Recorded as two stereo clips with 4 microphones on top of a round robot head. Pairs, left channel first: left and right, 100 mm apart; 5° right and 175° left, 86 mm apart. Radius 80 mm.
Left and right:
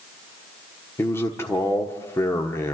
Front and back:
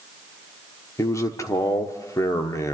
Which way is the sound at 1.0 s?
30° left.